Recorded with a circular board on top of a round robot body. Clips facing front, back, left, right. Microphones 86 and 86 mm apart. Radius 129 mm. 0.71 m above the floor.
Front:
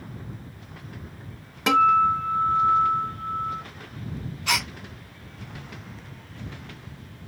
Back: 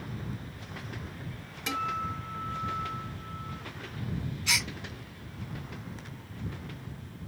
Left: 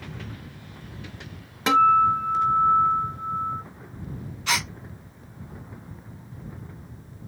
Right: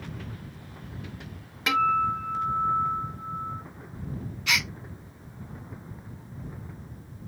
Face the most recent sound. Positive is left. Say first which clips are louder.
# front 7 dB, left 2 dB
turn(degrees=35)